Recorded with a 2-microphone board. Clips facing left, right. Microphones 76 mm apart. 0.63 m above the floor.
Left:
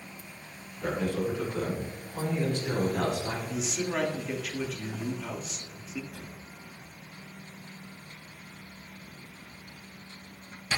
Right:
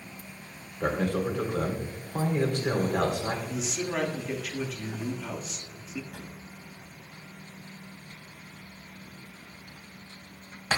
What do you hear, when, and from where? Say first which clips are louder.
0.8 s a man speaking: right 2 dB; 65° right (ahead or behind), 3 m
3.5 s a man speaking: even; centre (ahead or behind), 1.3 m
6.1 s a drawer: right 1 dB; 60° right (ahead or behind), 1.4 m